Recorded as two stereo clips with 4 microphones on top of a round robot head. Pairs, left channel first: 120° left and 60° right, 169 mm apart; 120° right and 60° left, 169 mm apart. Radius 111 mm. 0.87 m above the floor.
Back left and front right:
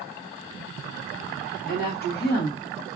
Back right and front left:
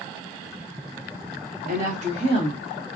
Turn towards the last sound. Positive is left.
turn(degrees=130)